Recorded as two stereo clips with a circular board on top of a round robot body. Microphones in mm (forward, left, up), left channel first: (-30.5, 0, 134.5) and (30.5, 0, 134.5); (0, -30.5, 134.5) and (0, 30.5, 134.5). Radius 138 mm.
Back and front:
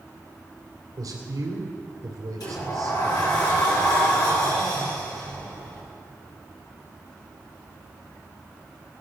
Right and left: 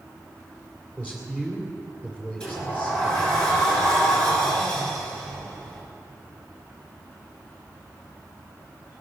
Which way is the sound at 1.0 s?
20° right.